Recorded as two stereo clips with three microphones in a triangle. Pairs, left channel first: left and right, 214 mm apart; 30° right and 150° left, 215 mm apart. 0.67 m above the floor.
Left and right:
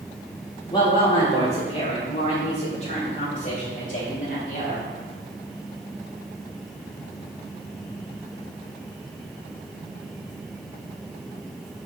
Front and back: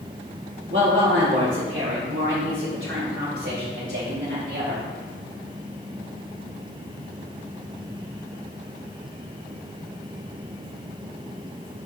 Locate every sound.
0.7 s a woman speaking: 155° left, 1.5 m; by 4.9 s 130° left, 3.5 m